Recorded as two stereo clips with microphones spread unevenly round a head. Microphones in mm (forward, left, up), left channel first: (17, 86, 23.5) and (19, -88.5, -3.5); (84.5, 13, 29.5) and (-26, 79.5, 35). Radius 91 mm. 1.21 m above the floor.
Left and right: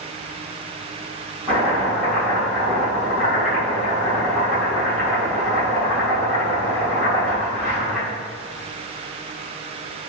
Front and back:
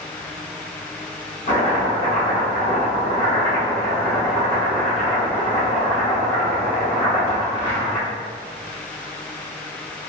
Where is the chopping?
Straight ahead, 1.7 m.